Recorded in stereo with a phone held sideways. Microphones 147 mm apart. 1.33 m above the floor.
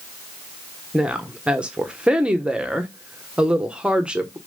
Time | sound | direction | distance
0.9 | a woman speaking | 5° right (ahead or behind) | 1.1 m